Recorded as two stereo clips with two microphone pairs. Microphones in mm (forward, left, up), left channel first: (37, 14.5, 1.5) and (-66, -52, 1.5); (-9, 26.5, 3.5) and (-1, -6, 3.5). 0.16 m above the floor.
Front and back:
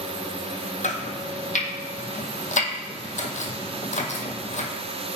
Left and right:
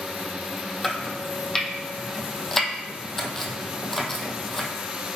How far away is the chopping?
About 1.0 m.